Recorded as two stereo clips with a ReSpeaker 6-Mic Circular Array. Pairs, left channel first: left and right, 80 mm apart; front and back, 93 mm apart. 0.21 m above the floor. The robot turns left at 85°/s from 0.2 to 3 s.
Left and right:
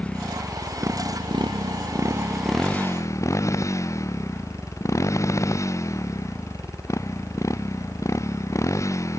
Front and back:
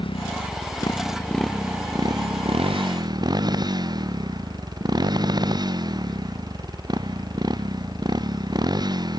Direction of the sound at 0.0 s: 15° left.